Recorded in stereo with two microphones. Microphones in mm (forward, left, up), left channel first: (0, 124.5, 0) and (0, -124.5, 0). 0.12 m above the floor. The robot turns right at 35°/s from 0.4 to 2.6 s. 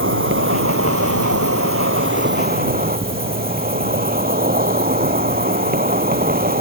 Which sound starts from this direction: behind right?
An insect, at 0.0 s.